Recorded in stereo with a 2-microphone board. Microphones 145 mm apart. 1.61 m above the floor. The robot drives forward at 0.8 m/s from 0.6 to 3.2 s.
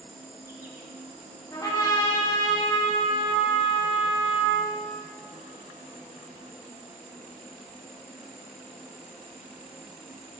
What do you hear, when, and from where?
0.0 s an insect: 75° right (ahead or behind), 1.9 m; by 10.4 s 40° right (ahead or behind), 3 m
1.5 s a trumpet: 25° left (ahead or behind), 2 m; by 4.7 s 50° left (ahead or behind), 1.1 m